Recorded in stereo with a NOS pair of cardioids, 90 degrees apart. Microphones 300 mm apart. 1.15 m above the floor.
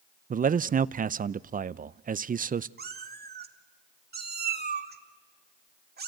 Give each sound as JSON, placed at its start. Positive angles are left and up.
{"t": 0.3, "sound": "a man speaking", "azimuth_deg": -30, "distance_m": 0.5}
{"t": 2.8, "sound": "a cat meowing", "azimuth_deg": -35, "distance_m": 1.7}